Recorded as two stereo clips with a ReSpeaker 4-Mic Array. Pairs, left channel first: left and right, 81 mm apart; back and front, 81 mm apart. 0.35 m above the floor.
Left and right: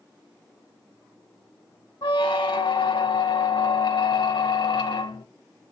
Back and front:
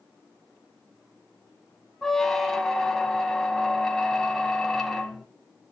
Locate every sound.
2.0 s a squeak: 95° left, 0.6 m